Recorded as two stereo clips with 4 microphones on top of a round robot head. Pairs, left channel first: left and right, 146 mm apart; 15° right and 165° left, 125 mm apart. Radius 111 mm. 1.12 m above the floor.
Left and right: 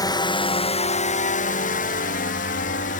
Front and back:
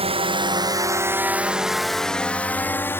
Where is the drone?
145° left; by 3.0 s 60° left.